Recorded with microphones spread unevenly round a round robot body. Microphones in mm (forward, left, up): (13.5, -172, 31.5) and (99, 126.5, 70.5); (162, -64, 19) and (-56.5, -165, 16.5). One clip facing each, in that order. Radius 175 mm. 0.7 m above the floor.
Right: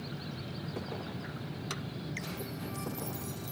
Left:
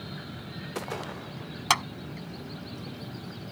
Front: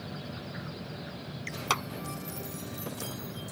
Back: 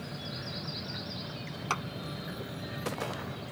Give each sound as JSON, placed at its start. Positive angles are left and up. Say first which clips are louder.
{"t": 1.7, "sound": "a clap", "louder": "left 7 dB, front 3 dB", "azimuth_deg": 85}